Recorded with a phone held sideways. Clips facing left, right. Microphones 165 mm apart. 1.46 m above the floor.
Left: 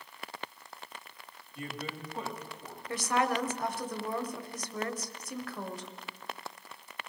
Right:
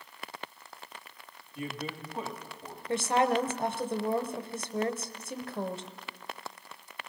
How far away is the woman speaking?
About 0.7 m.